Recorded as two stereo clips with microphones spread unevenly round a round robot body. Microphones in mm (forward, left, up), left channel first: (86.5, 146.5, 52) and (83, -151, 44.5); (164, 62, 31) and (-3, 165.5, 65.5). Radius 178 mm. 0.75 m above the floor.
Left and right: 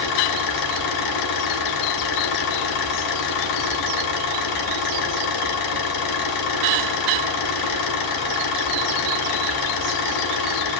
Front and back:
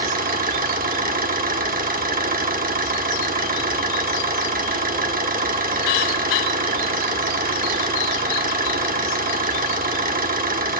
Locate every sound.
0.0 s an engine running: 100° left, 1.6 m